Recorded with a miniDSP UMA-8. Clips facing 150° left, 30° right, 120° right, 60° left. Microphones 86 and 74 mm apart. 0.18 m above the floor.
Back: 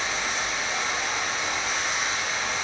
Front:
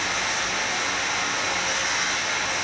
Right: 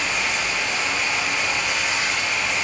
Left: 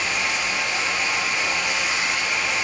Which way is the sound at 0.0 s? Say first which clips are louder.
Front 2 dB, even; 20° right.